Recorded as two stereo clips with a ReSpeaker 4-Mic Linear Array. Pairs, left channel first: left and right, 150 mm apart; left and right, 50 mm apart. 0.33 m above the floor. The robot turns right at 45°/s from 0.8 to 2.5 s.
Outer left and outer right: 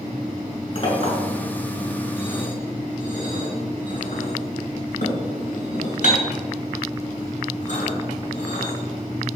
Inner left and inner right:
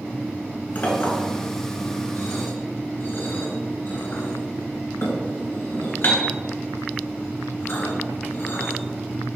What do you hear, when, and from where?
0.8 s a clink: 45° left (ahead or behind), 2.5 m; by 8.7 s 55° left (ahead or behind), 2.5 m